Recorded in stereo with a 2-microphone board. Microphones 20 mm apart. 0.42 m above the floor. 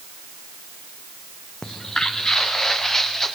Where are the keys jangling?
No keys jangling in this recording.